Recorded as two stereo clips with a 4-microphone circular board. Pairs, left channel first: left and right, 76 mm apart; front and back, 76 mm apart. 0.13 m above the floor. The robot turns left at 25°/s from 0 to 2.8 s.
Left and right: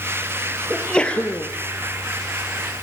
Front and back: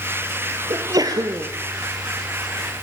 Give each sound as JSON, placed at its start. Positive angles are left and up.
{"t": 0.7, "sound": "a sneeze", "azimuth_deg": 170, "distance_m": 2.5}